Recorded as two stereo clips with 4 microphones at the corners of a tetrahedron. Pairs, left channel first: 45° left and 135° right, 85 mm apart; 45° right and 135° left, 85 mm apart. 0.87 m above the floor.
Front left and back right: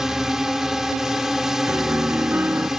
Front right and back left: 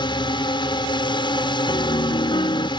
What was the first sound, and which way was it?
A drone, 50° right.